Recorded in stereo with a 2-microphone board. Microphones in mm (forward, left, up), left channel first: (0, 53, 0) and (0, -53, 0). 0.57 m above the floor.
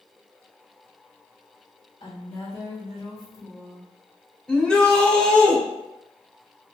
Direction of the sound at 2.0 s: 55° left (ahead or behind).